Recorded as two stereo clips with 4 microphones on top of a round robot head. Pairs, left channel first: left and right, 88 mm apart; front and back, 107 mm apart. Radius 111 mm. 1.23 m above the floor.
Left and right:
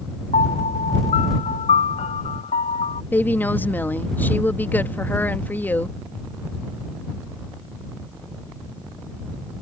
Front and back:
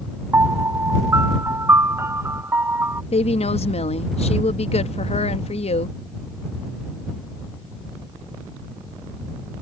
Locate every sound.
0.3 s a piano: 115° left
3.1 s a woman speaking: 20° left